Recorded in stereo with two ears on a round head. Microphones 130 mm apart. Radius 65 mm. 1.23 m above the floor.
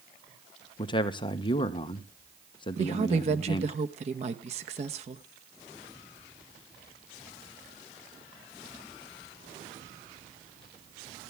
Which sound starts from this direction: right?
A woman speaking, at 2.8 s.